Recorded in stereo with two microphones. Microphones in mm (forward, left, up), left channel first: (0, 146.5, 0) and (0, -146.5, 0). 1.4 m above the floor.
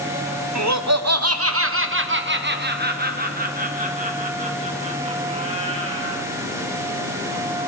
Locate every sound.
0.6 s laughter: 70° right (ahead or behind), 0.8 m; by 6.2 s 20° right (ahead or behind), 3.5 m